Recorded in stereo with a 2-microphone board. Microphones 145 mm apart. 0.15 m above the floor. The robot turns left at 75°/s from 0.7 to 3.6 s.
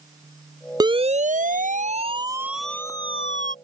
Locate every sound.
0.8 s a siren: 30° right (ahead or behind); by 3.5 s 70° left (ahead or behind)